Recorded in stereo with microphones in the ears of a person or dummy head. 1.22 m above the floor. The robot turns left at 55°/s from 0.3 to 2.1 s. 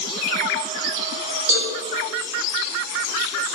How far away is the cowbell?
About 1.7 m.